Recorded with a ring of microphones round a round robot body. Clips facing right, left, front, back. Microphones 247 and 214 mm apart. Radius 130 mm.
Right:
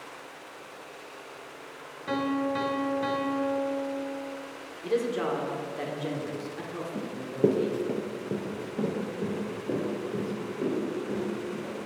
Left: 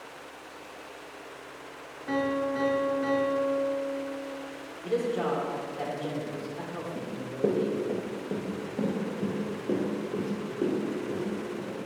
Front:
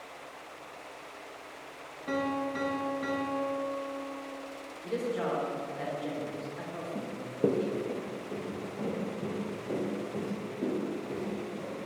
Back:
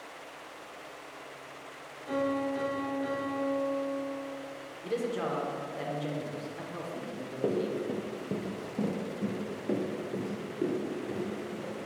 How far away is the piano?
About 0.9 m.